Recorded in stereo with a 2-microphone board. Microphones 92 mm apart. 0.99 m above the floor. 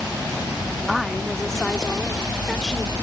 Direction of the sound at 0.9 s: Centre (ahead or behind).